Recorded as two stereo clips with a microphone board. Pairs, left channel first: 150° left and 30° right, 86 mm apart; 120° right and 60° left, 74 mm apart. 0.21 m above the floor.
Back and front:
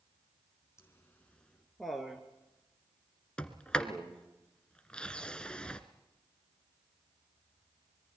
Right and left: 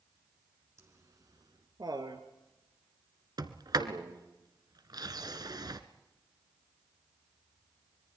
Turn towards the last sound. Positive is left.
turn(degrees=70)